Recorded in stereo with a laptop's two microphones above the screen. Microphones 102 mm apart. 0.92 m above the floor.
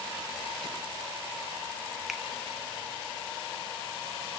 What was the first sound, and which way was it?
A finger snap, centre (ahead or behind).